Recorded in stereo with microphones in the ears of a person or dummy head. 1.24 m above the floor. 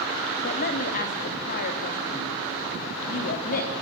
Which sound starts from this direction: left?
A man speaking, at 0.4 s.